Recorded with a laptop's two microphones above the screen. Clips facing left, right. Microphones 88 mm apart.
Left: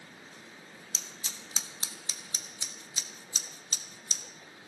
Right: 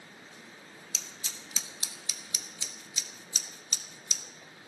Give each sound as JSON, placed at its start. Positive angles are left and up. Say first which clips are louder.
{"t": 0.9, "sound": "scissors", "louder": "left 1 dB", "side_deg": 35, "distance_m": 1.4}